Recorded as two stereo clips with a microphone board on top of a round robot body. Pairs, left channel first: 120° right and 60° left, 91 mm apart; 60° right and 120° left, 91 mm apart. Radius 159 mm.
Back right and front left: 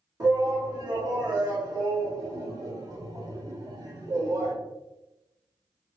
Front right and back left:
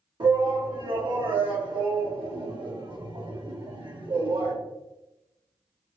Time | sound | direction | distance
0.2 | a shout | 100° left | 1.7 m